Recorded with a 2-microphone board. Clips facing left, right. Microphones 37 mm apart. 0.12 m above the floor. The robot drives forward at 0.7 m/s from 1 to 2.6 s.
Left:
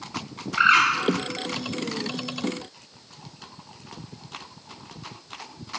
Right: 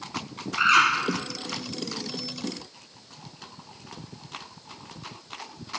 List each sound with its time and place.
0.6 s a bird: 35° left (ahead or behind), 1.8 m